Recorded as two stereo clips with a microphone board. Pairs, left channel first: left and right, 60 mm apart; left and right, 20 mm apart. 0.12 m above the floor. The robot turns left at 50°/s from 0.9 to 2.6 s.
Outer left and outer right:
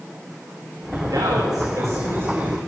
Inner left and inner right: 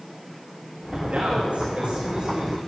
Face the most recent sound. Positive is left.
turn(degrees=-160)